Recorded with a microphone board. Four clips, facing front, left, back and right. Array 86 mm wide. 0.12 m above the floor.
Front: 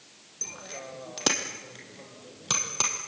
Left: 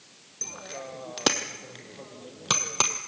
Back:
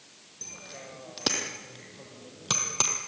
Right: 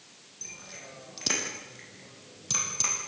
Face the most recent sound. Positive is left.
turn(degrees=95)